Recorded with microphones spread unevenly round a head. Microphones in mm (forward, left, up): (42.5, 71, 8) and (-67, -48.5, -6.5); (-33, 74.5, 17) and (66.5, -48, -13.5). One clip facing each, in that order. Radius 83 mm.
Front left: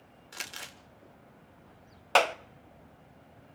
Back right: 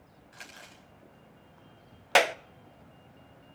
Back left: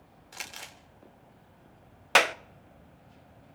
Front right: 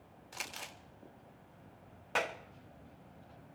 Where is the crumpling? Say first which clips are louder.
Front left 4 dB, back left 1 dB; 40° left, 3.5 m.